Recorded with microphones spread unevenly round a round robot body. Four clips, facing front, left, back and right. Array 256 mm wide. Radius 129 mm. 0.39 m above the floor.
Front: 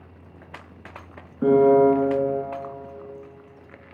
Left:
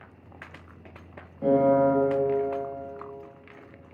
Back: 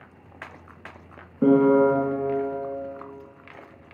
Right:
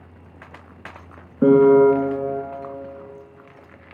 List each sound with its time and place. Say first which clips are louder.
1.4 s a piano: right 8 dB, front 2 dB; 100° right, 0.8 m